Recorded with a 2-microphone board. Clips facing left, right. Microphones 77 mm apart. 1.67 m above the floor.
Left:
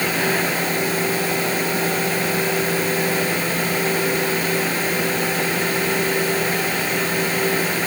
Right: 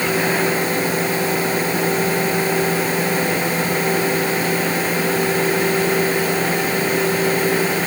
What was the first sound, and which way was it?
Only background noise.